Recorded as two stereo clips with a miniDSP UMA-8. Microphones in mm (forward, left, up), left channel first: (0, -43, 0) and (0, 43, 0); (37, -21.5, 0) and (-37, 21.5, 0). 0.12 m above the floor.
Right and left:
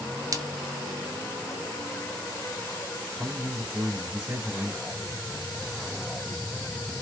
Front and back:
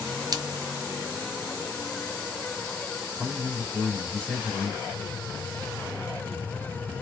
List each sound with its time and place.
0.3 s a splash: 130° left, 0.5 m
3.2 s a man speaking: 35° left, 2.5 m